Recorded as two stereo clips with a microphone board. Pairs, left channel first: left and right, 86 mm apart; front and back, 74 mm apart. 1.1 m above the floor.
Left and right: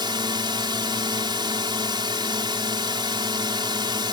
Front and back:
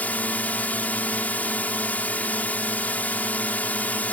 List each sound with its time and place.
0.0 s a drone: 65° right